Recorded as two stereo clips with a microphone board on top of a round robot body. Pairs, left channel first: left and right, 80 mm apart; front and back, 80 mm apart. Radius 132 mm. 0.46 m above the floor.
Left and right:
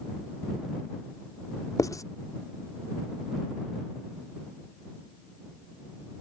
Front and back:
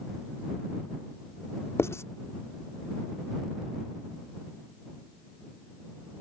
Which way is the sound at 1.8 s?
50° left.